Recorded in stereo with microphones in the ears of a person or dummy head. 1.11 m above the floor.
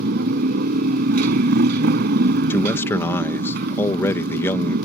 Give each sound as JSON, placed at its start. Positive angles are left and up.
{"t": 0.0, "sound": "a motorcycle", "side_deg": -50}
{"t": 2.5, "sound": "a man speaking", "side_deg": 15}